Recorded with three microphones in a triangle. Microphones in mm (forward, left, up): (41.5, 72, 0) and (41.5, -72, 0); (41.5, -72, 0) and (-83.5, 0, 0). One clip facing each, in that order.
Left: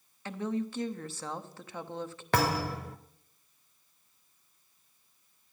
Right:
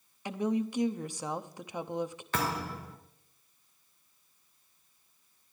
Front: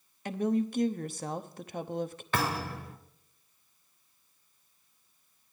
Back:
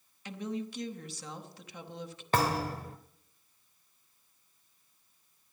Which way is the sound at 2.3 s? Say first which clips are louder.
Left 6 dB, back 3 dB; 100° left.